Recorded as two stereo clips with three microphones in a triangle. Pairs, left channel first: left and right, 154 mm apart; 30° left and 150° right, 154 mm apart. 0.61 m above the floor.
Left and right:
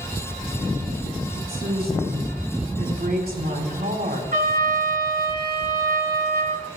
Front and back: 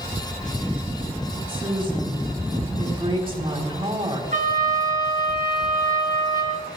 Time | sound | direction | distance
1.4 | a woman speaking | 95° right | 3.5 m
4.3 | a trumpet | 115° right | 3 m